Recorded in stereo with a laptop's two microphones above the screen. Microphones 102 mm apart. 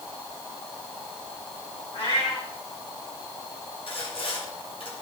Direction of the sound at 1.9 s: 70° left (ahead or behind).